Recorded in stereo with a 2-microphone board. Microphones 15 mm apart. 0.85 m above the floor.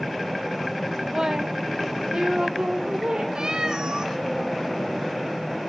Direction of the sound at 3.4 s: 50° right (ahead or behind).